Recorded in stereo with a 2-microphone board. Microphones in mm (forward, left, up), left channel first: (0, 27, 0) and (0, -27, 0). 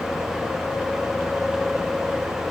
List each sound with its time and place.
Only background noise.